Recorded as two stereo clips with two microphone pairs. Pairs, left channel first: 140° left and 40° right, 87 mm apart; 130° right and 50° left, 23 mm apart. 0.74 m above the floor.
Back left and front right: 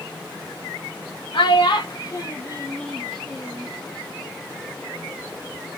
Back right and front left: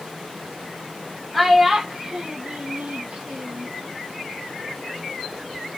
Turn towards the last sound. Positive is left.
turn(degrees=30)